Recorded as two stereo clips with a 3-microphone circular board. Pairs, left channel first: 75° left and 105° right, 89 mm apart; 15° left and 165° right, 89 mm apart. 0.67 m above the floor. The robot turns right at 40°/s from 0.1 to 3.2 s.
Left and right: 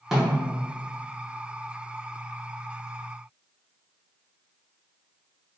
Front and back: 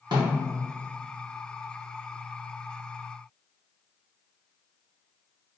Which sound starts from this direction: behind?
A snare drum, at 0.1 s.